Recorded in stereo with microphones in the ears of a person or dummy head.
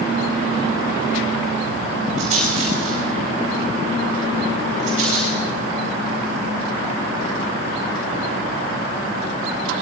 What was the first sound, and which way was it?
A rattle, 45° right (ahead or behind).